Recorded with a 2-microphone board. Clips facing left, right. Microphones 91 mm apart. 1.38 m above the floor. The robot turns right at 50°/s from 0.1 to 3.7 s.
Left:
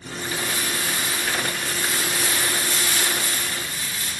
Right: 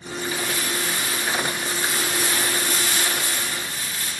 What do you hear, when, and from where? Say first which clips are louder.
0.2 s crumpling: even; 130° left, 1.2 m; by 4.1 s 55° right, 1.2 m